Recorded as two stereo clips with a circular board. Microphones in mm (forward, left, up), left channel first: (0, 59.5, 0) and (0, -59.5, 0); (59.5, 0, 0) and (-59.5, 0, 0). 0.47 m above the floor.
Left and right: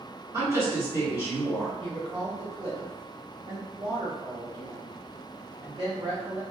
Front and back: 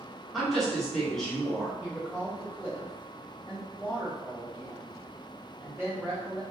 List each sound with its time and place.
0.3 s a woman speaking: 80° right, 1.1 m
1.8 s a woman speaking: 85° right, 1.0 m